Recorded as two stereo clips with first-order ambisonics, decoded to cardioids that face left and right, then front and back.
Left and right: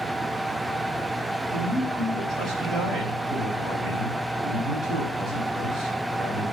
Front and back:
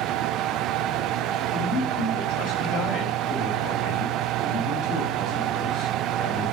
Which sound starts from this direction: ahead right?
A man speaking, at 1.5 s.